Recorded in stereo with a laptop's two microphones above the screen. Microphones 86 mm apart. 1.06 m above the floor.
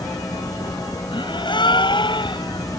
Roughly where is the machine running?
Left.